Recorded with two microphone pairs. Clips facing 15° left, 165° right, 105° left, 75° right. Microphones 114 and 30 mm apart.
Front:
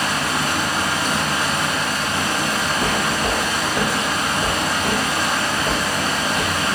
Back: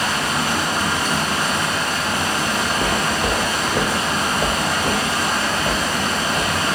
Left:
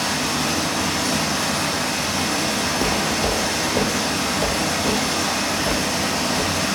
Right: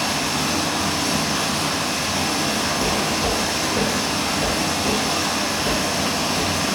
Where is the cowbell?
I don't hear a cowbell.